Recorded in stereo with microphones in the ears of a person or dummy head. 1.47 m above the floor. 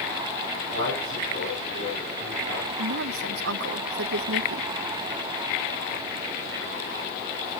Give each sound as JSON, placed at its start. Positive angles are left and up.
{"t": 0.7, "sound": "a man speaking", "side_deg": -70, "distance_m": 8.0}
{"t": 2.8, "sound": "a woman speaking", "side_deg": -75, "distance_m": 1.1}